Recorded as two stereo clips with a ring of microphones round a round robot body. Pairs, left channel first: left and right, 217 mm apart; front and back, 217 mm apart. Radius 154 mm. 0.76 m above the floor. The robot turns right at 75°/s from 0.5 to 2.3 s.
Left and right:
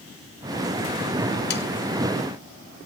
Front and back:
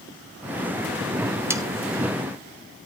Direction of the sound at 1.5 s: 105° left.